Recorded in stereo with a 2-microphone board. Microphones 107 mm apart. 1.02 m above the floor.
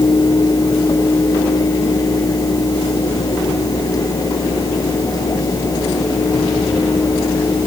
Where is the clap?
I don't hear a clap.